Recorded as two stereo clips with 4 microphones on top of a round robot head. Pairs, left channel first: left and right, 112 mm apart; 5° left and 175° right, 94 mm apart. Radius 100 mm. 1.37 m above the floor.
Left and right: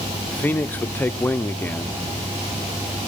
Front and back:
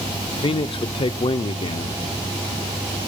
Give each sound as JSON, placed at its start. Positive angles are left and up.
{"t": 0.3, "sound": "a man speaking", "azimuth_deg": 15, "distance_m": 0.9}